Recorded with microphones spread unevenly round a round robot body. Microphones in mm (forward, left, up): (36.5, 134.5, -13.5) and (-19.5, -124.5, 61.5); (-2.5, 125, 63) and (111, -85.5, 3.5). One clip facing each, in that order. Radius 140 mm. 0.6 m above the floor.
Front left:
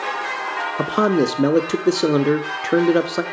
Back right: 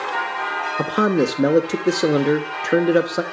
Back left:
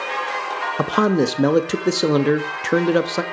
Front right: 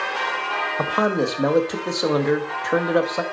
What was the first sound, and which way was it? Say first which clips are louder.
A man speaking: front left 1 dB, back left 4 dB; 115° left.